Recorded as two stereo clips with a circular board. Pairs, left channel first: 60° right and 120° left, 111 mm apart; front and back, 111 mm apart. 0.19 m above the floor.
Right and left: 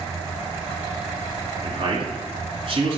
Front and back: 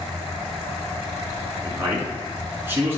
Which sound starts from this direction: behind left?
A man speaking, at 1.6 s.